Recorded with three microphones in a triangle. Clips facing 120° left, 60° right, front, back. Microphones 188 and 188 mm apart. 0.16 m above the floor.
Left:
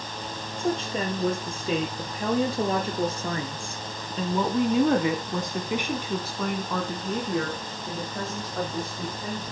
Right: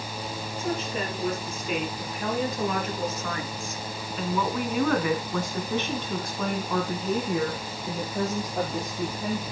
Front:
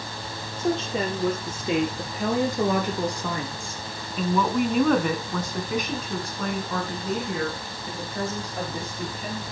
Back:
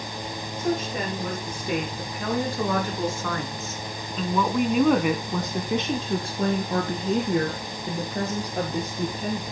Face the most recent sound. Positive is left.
turn(degrees=-135)